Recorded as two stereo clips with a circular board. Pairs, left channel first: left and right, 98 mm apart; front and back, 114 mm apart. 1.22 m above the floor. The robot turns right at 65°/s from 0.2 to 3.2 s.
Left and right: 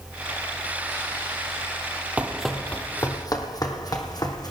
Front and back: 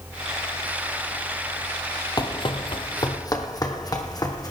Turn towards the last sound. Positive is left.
turn(degrees=50)